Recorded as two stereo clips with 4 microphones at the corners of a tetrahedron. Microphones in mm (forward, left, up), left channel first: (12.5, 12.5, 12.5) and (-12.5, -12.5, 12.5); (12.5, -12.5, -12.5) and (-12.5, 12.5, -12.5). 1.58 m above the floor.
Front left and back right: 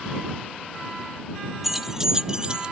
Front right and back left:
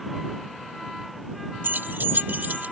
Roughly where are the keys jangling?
Behind left.